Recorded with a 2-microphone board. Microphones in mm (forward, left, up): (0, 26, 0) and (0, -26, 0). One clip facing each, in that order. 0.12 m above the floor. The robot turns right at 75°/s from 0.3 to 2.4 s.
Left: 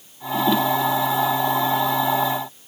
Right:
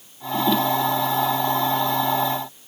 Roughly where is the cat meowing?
No cat meowing in this recording.